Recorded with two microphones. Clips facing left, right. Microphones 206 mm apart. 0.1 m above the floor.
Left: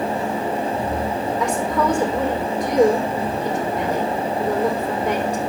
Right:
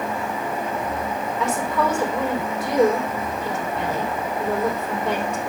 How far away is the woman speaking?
About 4 m.